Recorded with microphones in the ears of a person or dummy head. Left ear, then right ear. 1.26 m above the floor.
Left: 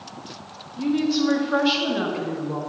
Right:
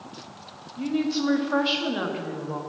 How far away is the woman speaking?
About 1.6 m.